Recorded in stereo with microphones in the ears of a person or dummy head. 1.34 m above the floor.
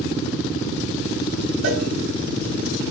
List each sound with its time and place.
1.6 s a cowbell: 85° right, 6.5 m